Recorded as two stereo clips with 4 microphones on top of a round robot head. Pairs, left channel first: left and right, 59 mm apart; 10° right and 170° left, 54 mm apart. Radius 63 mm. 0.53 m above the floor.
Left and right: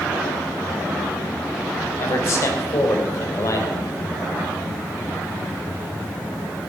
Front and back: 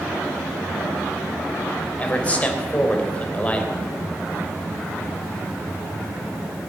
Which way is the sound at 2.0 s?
50° left.